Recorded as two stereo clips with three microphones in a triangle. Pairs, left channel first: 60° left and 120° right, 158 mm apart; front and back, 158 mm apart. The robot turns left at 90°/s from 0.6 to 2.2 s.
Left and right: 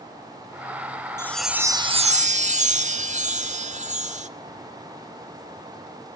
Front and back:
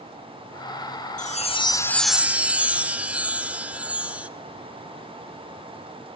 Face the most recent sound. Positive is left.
turn(degrees=-100)